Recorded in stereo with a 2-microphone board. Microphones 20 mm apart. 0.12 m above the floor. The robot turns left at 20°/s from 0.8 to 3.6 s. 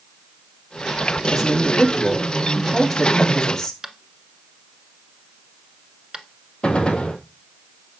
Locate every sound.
1.3 s a man speaking: 160° right, 5.5 m; by 3.7 s 150° left, 5.5 m
3.8 s tapping: 25° right (ahead or behind), 1.0 m
6.6 s a gunshot: 60° left (ahead or behind), 1.6 m